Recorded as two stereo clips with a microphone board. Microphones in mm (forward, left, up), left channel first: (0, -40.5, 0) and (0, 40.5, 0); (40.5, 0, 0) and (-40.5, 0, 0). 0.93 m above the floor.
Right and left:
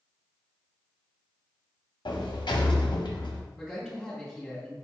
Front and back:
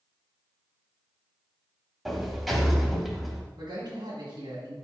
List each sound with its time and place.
2.0 s a sliding door: 90° right, 0.7 m
3.6 s a man speaking: straight behind, 1.7 m